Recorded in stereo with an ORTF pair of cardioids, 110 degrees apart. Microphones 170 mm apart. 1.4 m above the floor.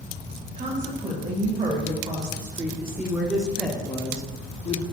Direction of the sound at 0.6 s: 40° right.